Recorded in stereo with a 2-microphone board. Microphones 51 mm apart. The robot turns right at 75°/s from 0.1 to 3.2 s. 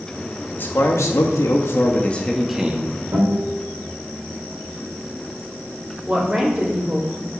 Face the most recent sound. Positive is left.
turn(degrees=-30)  # may be behind; listen again after turning